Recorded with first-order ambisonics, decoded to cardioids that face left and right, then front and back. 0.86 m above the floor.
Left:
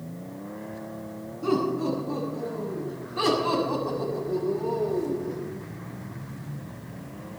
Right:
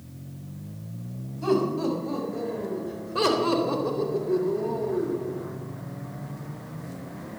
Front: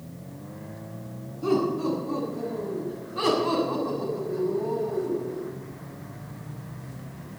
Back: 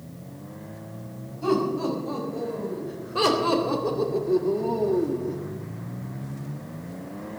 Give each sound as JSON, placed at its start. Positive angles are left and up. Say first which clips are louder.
{"t": 1.4, "sound": "laughter", "louder": "right 1 dB, back 1 dB", "azimuth_deg": -120, "distance_m": 6.0}